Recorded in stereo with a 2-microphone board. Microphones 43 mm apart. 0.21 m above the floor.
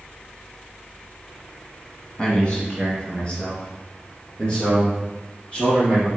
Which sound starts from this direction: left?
A man speaking, at 2.2 s.